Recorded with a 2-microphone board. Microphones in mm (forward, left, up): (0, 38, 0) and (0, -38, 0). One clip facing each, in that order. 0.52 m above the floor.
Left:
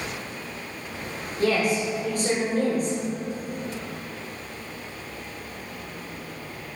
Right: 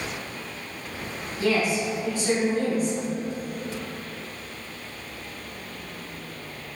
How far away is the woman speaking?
About 1.7 m.